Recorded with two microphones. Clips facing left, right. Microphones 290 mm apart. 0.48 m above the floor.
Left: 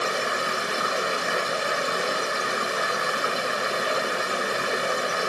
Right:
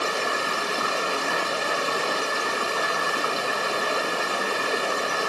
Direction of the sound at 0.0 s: 15° left (ahead or behind).